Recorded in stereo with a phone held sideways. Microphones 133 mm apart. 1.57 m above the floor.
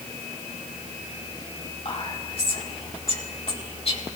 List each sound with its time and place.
1.9 s whispering: 45° left (ahead or behind), 4 m